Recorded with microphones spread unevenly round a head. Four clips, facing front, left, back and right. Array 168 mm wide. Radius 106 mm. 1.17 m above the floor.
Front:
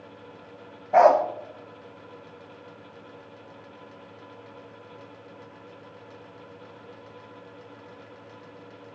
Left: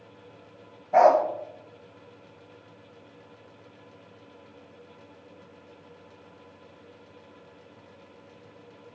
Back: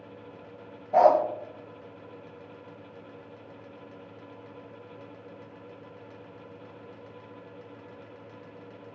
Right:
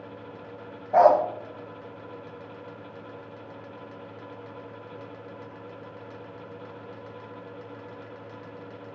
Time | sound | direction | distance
0.9 | a dog barking | straight ahead | 0.8 m